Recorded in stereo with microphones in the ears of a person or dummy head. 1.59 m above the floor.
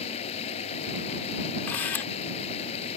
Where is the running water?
40° left (ahead or behind).